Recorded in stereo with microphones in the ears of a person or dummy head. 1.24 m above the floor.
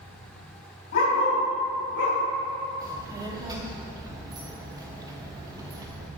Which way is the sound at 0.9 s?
50° left (ahead or behind).